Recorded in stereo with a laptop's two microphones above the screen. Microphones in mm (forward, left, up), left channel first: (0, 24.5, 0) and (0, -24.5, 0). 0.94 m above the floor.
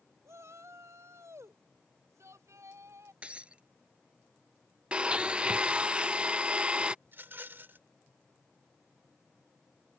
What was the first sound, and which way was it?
A shout, 80° right.